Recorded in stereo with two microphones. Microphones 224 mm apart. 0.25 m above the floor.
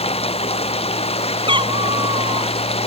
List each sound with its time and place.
0.0 s running water: 30° left (ahead or behind)
1.5 s a cat meowing: 25° right (ahead or behind)